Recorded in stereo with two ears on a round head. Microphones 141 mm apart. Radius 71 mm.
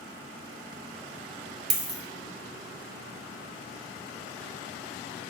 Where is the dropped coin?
35° right (ahead or behind), 0.9 m.